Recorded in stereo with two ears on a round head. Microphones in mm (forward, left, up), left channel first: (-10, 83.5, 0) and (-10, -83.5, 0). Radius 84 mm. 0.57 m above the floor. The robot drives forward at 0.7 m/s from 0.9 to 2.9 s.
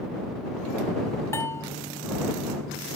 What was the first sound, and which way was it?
A bell, 15° left (ahead or behind).